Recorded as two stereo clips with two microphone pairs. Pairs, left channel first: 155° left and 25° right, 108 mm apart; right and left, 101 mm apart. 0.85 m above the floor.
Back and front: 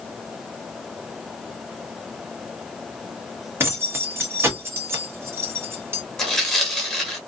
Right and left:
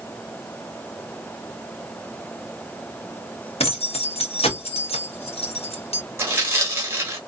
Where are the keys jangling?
90° right, 0.9 m.